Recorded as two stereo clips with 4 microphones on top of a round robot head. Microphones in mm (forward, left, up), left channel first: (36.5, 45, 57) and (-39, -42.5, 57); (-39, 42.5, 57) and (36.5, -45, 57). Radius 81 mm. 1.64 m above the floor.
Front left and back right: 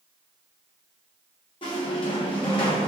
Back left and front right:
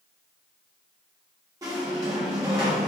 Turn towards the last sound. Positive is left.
turn(degrees=10)